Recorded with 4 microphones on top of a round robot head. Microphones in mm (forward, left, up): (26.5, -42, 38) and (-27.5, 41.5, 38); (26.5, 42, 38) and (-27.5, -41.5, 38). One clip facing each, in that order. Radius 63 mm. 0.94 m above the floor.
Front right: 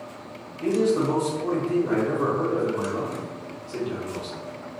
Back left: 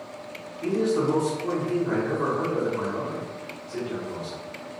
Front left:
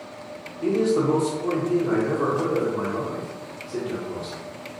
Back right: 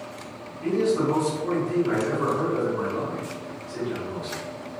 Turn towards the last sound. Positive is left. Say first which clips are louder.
# front right 2 dB, front left 2 dB
turn(degrees=5)